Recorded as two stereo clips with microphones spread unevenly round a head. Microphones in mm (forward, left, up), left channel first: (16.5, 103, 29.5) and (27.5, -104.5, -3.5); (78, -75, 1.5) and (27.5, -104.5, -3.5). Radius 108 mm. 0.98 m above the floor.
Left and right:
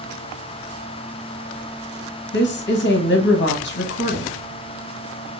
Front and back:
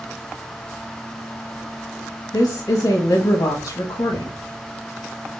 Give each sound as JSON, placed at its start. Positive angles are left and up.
{"t": 2.3, "sound": "a woman speaking", "azimuth_deg": 55, "distance_m": 1.0}